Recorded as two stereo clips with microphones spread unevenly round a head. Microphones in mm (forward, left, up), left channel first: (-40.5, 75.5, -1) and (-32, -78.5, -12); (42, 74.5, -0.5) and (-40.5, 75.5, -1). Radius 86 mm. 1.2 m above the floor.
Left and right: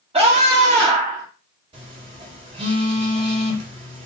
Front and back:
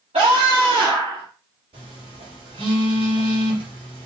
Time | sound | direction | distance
0.1 | a scream | 140° right | 1.8 m
1.7 | a phone buzzing | 140° right | 1.9 m